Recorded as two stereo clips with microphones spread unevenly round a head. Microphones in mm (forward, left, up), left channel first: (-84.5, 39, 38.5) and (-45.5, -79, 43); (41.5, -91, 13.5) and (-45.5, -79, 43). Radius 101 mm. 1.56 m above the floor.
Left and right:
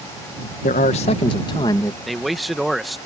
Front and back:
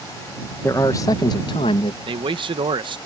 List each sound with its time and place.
0.6 s a man speaking: 70° left; by 2.0 s 35° left
2.1 s a man speaking: 160° right